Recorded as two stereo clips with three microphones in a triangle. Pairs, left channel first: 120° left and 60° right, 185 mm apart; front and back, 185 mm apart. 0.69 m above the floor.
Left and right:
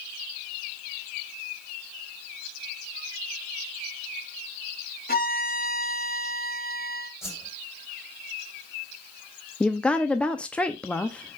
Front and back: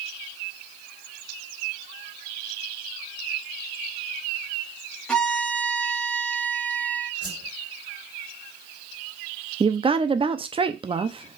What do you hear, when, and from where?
5.1 s a violin: 85° left, 1.7 m
7.2 s a whoosh: 165° right, 2 m
9.6 s a woman speaking: 165° right, 0.6 m